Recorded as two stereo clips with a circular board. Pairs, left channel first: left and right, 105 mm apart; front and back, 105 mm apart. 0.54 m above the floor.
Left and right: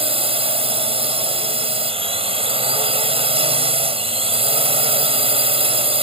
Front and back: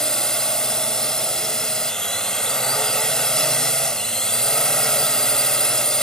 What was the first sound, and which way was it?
A drone, 85° right.